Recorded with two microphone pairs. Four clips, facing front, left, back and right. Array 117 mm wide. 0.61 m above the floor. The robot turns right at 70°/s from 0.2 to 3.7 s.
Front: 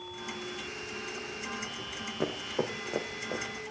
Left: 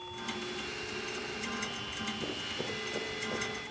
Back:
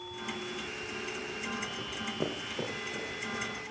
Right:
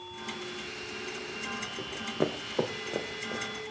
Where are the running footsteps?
115° right, 4 m; by 3.5 s 10° left, 3.5 m.